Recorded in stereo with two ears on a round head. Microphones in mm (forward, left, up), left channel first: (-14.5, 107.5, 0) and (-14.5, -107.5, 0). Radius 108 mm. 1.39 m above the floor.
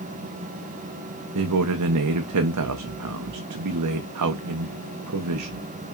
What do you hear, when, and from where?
1.4 s a man speaking: 75° right (ahead or behind), 0.5 m